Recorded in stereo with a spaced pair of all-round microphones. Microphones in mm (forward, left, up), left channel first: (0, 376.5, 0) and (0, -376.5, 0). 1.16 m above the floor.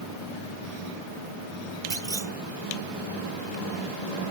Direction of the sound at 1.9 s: 55° right (ahead or behind).